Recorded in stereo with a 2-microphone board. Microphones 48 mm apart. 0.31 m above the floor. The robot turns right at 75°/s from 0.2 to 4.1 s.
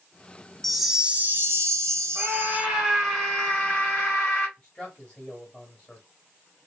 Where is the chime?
175° left, 0.6 m; by 2.7 s 35° right, 0.6 m.